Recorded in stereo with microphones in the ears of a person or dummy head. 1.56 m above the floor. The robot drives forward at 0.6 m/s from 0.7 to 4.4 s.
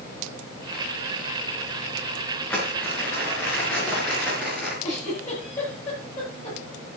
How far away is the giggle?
About 9.5 m.